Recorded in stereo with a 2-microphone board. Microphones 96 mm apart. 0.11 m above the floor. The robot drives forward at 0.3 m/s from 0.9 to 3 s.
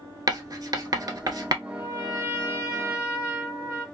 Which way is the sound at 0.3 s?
40° right (ahead or behind).